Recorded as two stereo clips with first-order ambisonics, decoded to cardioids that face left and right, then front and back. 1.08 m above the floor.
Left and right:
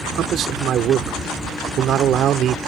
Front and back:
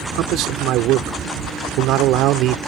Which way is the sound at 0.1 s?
145° right.